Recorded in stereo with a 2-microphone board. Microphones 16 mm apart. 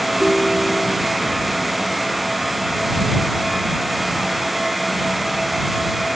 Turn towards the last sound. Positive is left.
turn(degrees=50)  # may be behind; listen again after turning